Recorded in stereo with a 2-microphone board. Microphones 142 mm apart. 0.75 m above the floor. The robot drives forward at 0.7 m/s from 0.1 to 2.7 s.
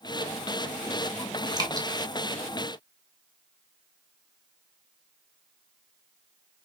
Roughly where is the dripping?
Right.